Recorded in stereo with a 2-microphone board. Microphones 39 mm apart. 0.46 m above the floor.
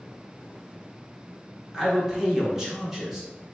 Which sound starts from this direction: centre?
A man speaking, at 1.7 s.